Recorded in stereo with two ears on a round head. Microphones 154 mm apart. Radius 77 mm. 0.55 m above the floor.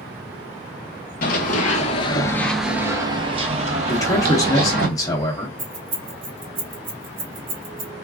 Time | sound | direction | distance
1.2 | running footsteps | 55° left (ahead or behind) | 0.8 m
3.9 | a man speaking | 20° left (ahead or behind) | 0.7 m
5.6 | keys jangling | 50° right (ahead or behind) | 1.3 m